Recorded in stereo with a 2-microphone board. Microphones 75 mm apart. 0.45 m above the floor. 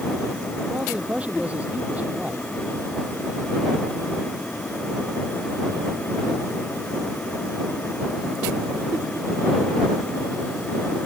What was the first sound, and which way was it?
A man speaking, 15° right (ahead or behind).